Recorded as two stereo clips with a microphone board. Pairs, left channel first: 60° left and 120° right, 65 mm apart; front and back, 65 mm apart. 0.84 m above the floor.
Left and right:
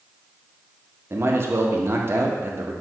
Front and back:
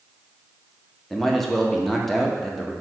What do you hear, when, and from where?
1.1 s a man speaking: 85° right, 0.6 m